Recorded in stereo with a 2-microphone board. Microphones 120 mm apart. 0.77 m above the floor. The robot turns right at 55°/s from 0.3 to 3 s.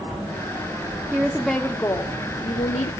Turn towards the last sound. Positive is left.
turn(degrees=85)